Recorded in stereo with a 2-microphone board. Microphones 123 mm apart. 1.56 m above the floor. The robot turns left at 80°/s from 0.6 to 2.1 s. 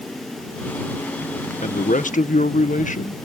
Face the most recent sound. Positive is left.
turn(degrees=80)